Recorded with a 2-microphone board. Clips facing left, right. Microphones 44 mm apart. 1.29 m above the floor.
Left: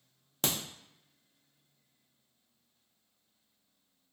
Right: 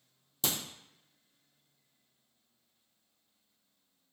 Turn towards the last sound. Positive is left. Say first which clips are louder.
# left 2 dB
turn(degrees=50)  # may be behind; listen again after turning